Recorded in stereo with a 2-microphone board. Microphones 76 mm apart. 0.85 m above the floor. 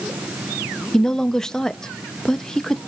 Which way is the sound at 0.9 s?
10° left (ahead or behind).